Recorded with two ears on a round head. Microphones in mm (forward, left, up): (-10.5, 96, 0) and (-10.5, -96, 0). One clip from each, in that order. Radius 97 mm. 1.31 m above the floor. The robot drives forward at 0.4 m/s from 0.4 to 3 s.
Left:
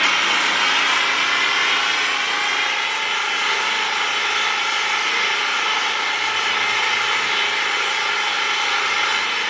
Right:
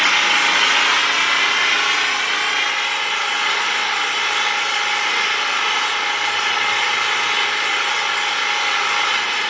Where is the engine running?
10° right (ahead or behind), 0.8 m; by 9.5 s 5° right (ahead or behind), 1.5 m.